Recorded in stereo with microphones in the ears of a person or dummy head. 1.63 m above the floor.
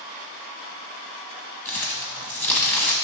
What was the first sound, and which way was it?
Crumpling, 10° left (ahead or behind).